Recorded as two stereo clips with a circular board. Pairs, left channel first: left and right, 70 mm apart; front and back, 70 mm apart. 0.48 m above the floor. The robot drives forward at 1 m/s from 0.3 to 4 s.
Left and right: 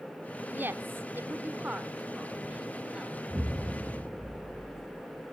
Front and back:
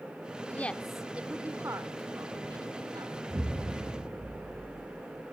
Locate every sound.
0.5 s a woman speaking: 45° right, 1.0 m; by 3.2 s 170° right, 2.5 m
3.3 s an explosion: 160° right, 2.5 m; by 5.2 s 165° right, 3.5 m